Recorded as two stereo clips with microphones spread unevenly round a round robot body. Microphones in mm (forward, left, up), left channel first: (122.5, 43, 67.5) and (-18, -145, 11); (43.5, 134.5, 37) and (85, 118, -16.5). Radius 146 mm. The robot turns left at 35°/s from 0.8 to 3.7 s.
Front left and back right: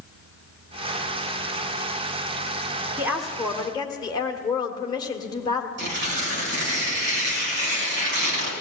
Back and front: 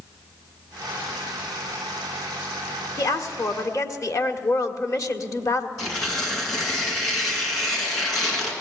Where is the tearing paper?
170° right, 4 m.